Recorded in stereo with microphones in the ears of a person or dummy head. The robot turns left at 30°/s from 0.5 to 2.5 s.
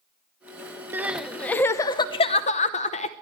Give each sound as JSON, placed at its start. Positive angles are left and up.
{"t": 0.9, "sound": "crying", "azimuth_deg": -170, "distance_m": 0.8}